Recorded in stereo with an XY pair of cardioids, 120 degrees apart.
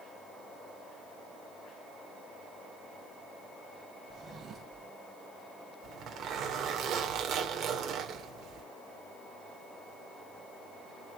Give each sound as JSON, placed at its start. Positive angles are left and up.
{"t": 4.1, "sound": "a drawer", "azimuth_deg": -50, "distance_m": 3.0}
{"t": 5.8, "sound": "a zipper", "azimuth_deg": -65, "distance_m": 3.0}